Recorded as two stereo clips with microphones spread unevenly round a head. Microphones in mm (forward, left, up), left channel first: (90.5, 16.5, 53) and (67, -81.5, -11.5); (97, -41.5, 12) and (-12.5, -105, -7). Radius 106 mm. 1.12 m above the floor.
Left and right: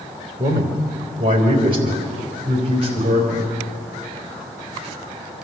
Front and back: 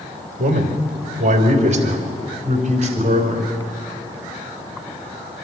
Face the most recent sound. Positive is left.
turn(degrees=-120)